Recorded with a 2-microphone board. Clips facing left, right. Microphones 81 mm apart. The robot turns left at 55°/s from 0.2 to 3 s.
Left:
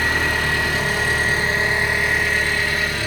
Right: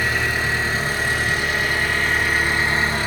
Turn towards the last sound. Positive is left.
turn(degrees=-40)